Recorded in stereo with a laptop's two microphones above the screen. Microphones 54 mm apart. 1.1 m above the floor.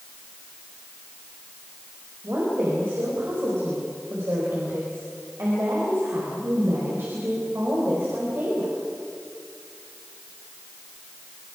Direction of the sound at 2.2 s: 55° right (ahead or behind).